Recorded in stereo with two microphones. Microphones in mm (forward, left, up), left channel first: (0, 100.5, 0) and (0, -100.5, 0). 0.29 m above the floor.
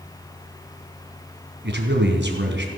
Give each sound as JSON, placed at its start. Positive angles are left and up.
{"t": 1.6, "sound": "a man speaking", "side_deg": -65, "distance_m": 3.0}